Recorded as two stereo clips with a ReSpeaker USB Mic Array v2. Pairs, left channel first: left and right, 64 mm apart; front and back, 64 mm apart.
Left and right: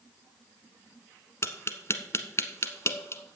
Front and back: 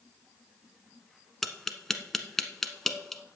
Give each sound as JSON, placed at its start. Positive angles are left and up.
{"t": 1.4, "sound": "tapping", "azimuth_deg": 85, "distance_m": 1.0}